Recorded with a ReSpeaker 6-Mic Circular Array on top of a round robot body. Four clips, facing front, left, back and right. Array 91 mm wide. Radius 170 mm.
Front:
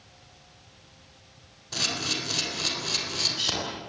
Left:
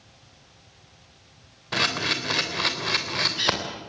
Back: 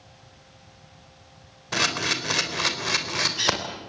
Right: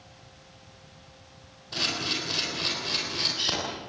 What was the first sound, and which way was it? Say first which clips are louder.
A camera shutter: left 6 dB, back 6 dB; 140° left.